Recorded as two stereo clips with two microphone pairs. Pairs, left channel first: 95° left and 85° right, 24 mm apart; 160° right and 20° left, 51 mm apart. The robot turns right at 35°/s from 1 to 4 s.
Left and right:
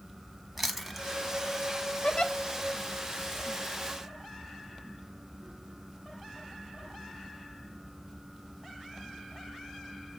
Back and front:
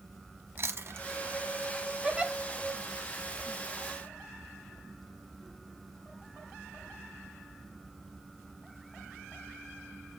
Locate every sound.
0.6 s chewing: straight ahead, 1.0 m
2.0 s a giggle: 85° left, 0.7 m; by 2.3 s 95° left, 0.7 m